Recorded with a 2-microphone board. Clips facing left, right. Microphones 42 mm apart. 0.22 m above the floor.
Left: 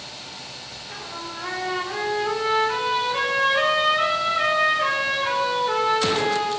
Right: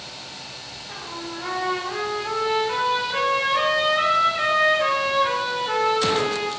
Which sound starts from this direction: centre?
A trumpet, at 0.9 s.